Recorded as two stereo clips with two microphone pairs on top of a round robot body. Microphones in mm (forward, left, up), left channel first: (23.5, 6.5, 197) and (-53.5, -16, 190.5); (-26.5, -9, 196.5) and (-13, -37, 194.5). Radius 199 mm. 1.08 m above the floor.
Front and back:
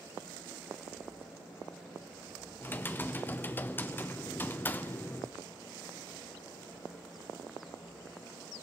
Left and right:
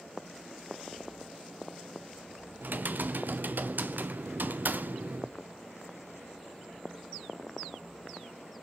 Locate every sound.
2.6 s typing on a keyboard: 50° right, 0.7 m